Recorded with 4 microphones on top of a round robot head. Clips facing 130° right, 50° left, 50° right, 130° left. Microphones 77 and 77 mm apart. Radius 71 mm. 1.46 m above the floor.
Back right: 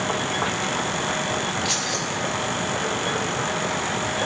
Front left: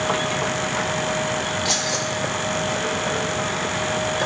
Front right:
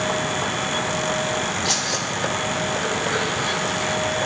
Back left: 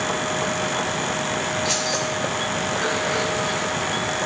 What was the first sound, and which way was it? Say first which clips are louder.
Keys jangling: front left 2 dB, back left 1 dB; 5° right.